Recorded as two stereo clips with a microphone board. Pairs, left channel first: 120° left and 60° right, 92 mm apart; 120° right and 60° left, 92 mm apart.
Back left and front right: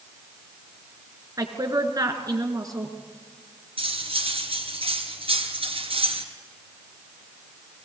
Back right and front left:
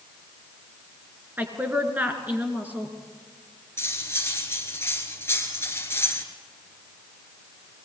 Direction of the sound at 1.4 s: 10° right.